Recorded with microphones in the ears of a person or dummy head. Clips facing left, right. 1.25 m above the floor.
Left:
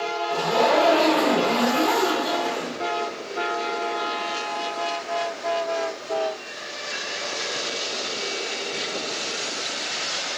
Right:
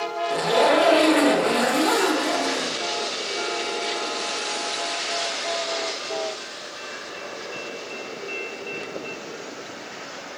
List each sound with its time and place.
0.3 s a zipper: 25° right (ahead or behind), 1.1 m